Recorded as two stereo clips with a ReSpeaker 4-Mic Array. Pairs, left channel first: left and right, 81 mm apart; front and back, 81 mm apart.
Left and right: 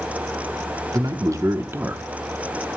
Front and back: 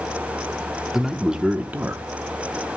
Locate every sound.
0.9 s a man speaking: 95° right, 1.0 m; by 2.0 s 145° right, 0.8 m